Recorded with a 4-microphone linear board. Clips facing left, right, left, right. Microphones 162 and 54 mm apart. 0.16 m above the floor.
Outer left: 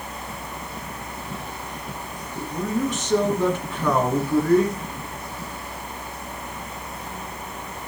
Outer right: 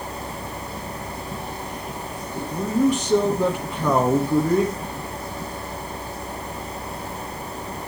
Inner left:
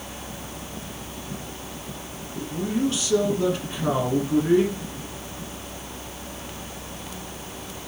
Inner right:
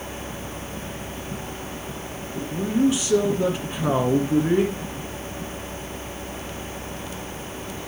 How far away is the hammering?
No hammering in this recording.